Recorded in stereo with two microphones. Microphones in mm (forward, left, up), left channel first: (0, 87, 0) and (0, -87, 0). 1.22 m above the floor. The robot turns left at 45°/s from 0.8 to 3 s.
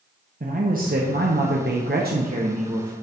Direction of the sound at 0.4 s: 55° right.